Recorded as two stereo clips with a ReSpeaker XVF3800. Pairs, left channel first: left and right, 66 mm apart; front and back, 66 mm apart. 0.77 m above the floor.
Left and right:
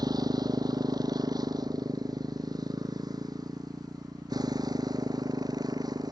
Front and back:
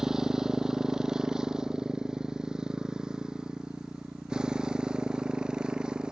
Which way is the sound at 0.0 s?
100° right.